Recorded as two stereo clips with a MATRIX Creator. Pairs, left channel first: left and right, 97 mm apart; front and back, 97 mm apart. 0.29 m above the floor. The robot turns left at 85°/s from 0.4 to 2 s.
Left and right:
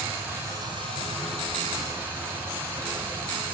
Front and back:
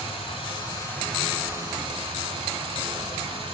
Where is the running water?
20° right, 2 m; by 3.5 s 155° right, 2 m.